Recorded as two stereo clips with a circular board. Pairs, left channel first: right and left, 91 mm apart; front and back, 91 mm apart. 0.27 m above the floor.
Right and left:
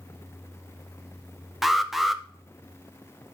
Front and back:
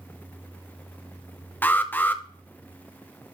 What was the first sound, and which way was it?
An alarm, 5° left.